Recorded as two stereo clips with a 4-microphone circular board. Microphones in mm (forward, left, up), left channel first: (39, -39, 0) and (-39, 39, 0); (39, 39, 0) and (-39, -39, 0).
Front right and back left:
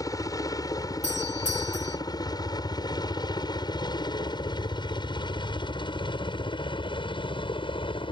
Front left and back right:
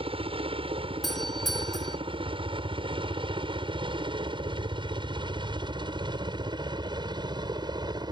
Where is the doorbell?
45° right.